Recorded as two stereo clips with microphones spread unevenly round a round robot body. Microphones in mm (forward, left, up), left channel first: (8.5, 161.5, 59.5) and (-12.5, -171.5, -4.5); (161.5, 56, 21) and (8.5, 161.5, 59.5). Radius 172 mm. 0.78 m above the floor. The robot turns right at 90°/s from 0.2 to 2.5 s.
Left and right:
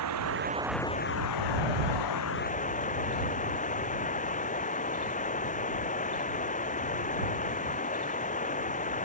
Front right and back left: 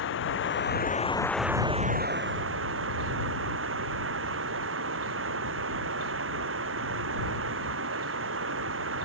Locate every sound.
0.0 s running water: 50° right; by 9.0 s 155° left